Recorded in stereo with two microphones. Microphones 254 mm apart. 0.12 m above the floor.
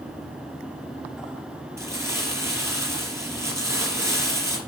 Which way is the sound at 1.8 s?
10° right (ahead or behind).